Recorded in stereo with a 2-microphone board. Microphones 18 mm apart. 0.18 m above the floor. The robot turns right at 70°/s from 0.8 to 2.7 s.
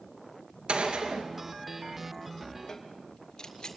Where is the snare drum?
15° left (ahead or behind), 3.5 m.